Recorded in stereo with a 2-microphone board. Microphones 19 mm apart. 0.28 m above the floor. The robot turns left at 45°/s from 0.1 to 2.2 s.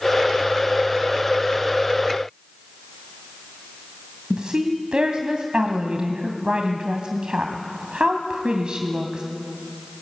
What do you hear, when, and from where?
4.3 s a woman speaking: 50° right (ahead or behind), 2 m